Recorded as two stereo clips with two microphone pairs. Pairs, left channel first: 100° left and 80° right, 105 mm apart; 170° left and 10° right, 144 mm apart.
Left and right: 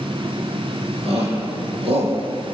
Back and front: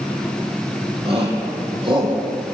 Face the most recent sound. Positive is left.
turn(degrees=-65)